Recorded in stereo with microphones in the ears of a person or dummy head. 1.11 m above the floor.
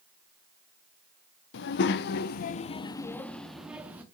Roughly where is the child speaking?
Left.